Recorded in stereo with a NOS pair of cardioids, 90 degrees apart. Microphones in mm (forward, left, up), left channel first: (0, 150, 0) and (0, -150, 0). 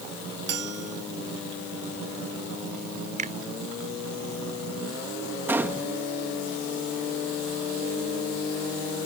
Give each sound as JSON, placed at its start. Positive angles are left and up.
{"t": 0.5, "sound": "a bell", "azimuth_deg": -55}
{"t": 3.2, "sound": "a finger snap", "azimuth_deg": -25}
{"t": 5.5, "sound": "a gunshot", "azimuth_deg": -5}